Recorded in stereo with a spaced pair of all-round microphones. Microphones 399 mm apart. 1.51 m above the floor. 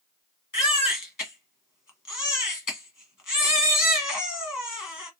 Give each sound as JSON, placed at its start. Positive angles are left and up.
{"t": 0.5, "sound": "a baby crying", "side_deg": 50, "distance_m": 1.1}